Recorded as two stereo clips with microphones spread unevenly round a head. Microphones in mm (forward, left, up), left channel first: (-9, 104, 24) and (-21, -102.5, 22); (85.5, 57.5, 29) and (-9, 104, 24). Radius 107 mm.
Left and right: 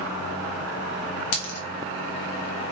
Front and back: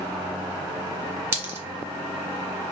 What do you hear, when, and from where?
1.3 s a dropped coin: 85° left, 2 m